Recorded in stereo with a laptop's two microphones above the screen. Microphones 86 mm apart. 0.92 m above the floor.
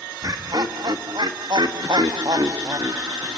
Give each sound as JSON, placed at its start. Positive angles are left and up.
{"t": 0.2, "sound": "laughter", "side_deg": -50, "distance_m": 1.7}